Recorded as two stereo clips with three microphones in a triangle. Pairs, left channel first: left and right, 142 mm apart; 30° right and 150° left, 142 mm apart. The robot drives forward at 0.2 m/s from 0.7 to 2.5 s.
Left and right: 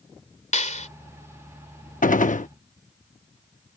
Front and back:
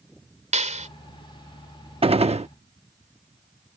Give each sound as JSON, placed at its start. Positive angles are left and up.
{"t": 0.5, "sound": "a clap", "azimuth_deg": 120}
{"t": 2.0, "sound": "a gunshot", "azimuth_deg": 105}